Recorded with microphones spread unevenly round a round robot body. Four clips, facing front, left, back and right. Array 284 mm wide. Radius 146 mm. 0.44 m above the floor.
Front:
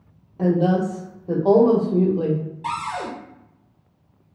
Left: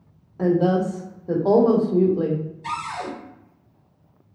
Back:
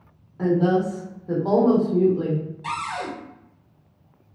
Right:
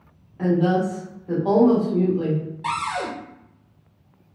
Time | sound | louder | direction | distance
0.4 | a woman speaking | left 1 dB, front 1 dB | 75° left | 0.8 m
2.6 | a cupboard door | right 5 dB, front 4 dB | 60° right | 1.0 m